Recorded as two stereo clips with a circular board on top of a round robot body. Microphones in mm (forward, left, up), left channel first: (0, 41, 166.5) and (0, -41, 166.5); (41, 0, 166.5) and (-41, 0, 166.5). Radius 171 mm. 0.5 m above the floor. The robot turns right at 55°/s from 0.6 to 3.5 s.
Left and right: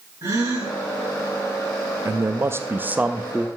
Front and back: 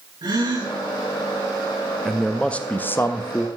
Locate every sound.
0.2 s a gasp: 150° right, 5.5 m; by 0.8 s 140° right, 5.5 m
2.0 s a man speaking: 90° right, 0.7 m; by 3.5 s 10° right, 0.7 m